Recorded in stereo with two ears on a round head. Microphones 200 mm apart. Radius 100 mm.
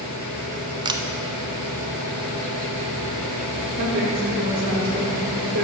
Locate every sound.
0.8 s a camera shutter: 20° right (ahead or behind), 0.5 m
3.8 s a woman speaking: 60° right (ahead or behind), 2 m